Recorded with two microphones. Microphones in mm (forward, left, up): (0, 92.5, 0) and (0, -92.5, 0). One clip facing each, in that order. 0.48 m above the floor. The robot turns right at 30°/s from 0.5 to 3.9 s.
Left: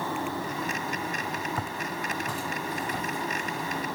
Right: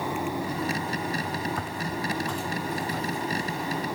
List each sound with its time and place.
1.6 s footsteps: 5° left (ahead or behind), 1.4 m; by 3.8 s 35° left (ahead or behind), 4.5 m